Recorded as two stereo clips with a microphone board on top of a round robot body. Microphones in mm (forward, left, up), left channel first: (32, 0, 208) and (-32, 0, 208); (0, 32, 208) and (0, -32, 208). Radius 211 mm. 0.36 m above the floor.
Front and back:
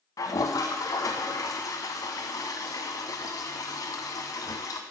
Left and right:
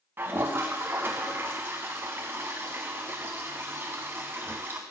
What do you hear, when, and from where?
0.2 s a toilet flushing: 30° right, 0.6 m